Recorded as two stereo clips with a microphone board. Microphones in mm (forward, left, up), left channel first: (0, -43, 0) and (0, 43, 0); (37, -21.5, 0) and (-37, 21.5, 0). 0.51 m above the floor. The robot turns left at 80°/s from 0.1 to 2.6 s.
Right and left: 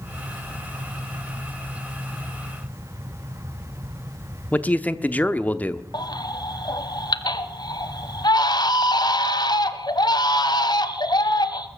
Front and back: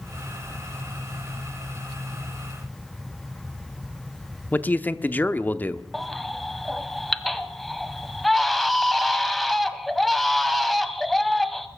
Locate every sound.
4.5 s a man speaking: 55° right, 0.8 m
5.9 s a baby crying: 120° right, 1.1 m